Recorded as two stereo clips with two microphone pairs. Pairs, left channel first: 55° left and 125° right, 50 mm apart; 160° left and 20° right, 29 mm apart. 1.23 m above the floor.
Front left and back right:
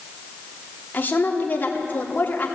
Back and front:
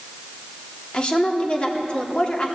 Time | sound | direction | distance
0.9 | a woman speaking | 105° left | 3.5 m